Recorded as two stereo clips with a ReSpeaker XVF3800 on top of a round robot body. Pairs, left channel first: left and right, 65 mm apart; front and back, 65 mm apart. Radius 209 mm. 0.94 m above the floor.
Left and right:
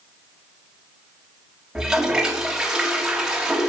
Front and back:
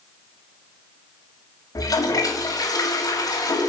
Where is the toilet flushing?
10° right, 2 m.